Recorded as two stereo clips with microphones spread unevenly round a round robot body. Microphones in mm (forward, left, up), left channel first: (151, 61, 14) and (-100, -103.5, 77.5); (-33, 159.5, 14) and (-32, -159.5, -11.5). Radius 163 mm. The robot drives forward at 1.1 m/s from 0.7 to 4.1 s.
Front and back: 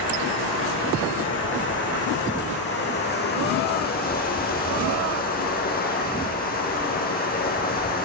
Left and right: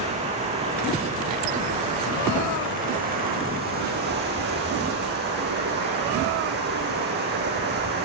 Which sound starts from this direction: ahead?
Running water, at 0.0 s.